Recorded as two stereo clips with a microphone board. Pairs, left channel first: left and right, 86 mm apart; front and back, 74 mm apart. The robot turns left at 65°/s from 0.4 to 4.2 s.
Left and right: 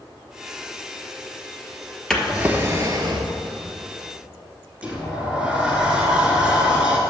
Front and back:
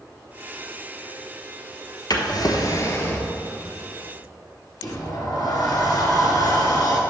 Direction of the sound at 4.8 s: 10° right.